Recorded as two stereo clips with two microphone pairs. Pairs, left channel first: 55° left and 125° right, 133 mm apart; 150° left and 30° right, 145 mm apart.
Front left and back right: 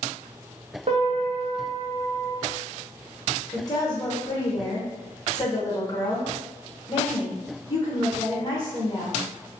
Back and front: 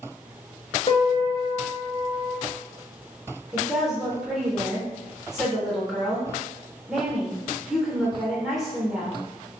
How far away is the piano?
About 0.7 m.